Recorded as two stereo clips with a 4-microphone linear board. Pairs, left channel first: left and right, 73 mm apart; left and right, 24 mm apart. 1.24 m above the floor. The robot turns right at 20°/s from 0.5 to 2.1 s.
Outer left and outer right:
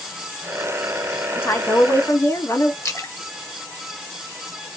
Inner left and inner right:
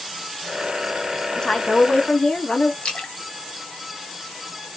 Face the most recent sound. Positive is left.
turn(degrees=40)  # may be behind; listen again after turning